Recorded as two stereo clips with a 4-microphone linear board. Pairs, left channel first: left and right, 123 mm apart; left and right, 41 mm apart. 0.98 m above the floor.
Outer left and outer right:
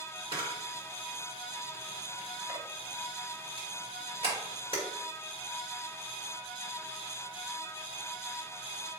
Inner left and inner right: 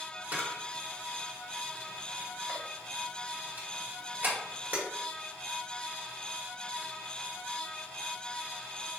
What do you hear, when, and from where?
0.3 s a camera shutter: 45° right (ahead or behind), 1.4 m